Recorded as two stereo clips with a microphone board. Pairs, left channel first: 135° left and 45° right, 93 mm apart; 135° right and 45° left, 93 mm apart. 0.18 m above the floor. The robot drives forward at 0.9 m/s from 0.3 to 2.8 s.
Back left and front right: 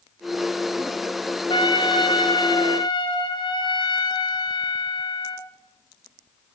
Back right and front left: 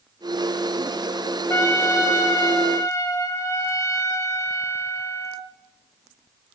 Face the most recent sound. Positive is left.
turn(degrees=165)